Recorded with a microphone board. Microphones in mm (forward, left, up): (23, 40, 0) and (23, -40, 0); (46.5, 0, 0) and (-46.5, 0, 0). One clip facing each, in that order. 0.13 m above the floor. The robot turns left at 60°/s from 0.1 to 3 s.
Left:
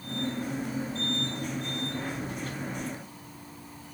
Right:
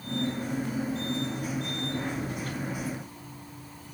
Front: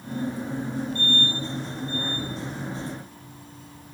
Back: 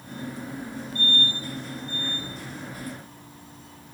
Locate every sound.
Only background noise.